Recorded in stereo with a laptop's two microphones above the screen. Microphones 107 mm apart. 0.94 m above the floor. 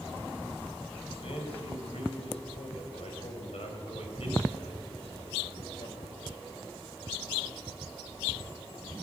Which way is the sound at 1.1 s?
75° left (ahead or behind).